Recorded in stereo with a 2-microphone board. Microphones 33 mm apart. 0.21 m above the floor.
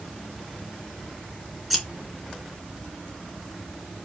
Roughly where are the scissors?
Centre.